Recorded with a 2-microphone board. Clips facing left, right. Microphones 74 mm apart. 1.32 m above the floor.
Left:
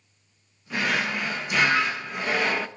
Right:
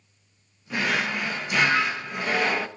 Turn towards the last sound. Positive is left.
turn(degrees=0)  # may be behind; listen again after turning